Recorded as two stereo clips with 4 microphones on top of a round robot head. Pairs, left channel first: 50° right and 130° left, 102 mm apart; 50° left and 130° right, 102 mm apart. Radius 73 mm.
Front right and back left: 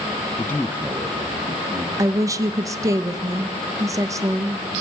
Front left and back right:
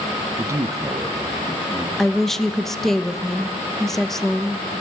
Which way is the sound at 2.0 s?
135° left.